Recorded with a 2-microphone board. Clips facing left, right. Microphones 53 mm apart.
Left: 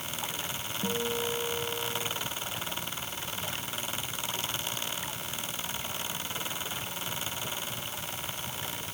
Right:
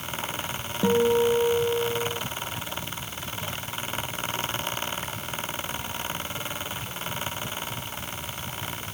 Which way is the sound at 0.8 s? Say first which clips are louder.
Right 12 dB; 70° right (ahead or behind).